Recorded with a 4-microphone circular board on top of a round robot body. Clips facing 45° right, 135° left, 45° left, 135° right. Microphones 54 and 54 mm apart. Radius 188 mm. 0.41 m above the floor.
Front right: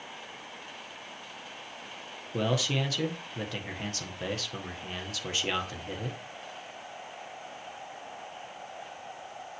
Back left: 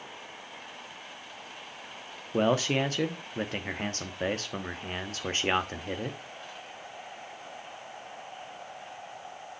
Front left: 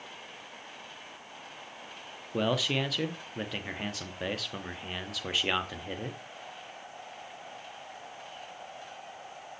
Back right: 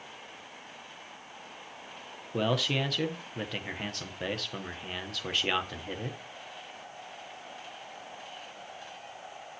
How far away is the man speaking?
About 1.4 m.